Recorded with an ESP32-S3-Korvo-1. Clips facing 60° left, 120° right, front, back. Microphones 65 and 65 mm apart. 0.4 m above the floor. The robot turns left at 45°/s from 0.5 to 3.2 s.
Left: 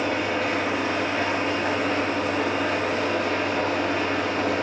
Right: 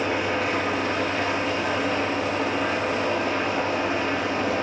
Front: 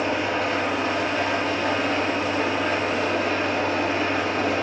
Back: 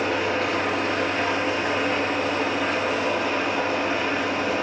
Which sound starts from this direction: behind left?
An engine running, at 0.0 s.